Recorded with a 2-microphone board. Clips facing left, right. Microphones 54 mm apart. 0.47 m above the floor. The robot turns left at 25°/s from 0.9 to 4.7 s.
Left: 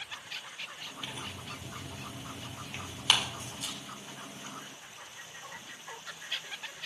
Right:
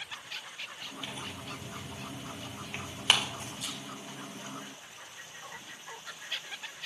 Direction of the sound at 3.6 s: 45° left (ahead or behind).